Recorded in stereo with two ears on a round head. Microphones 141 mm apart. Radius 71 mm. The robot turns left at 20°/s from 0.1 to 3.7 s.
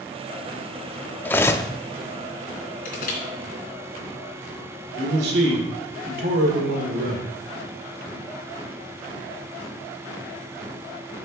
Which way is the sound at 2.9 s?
55° left (ahead or behind).